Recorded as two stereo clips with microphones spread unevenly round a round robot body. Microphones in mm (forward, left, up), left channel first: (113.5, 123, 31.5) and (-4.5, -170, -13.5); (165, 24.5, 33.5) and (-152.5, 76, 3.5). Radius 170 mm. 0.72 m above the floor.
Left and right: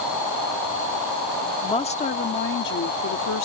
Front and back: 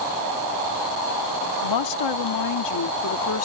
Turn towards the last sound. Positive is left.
turn(degrees=30)